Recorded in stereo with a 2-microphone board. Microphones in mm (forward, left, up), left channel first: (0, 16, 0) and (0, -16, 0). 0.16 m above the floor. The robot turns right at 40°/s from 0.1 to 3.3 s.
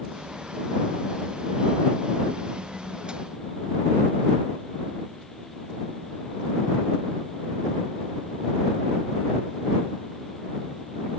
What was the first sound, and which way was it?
Only background noise.